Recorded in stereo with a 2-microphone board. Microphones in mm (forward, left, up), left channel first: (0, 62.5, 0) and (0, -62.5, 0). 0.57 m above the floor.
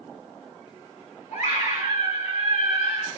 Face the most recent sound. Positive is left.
turn(degrees=70)  # may be behind; listen again after turning